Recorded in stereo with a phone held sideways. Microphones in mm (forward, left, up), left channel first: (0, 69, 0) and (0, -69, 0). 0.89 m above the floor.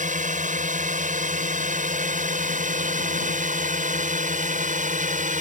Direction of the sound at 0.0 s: 70° right (ahead or behind).